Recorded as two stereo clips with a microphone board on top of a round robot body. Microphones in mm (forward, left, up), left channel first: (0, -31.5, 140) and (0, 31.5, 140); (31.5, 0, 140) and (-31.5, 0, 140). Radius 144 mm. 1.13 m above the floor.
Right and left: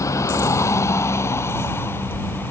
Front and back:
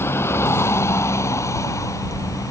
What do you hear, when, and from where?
0.0 s a vehicle: 50° right; by 2.5 s 35° right